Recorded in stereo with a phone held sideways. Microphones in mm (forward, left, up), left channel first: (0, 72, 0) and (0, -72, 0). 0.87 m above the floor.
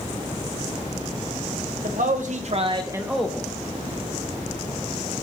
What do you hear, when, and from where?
1.8 s a man speaking: 75° right (ahead or behind), 1.2 m; by 3.5 s 15° left (ahead or behind), 0.9 m